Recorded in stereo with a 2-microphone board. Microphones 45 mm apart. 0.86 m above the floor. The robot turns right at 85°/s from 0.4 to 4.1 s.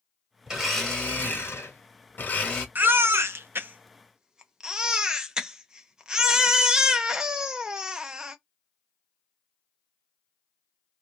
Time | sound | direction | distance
0.5 | a blender | 20° right | 1.2 m
2.8 | a baby crying | 130° right | 0.6 m